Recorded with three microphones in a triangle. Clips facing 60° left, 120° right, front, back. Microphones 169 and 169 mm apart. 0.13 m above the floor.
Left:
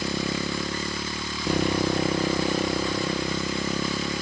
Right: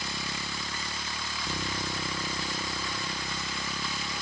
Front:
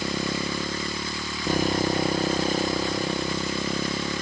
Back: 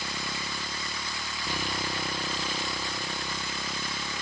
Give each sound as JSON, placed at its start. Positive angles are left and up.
{"t": 0.0, "sound": "a motorcycle", "azimuth_deg": 45}